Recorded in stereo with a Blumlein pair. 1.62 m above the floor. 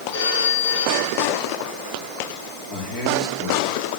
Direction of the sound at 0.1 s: 50° left.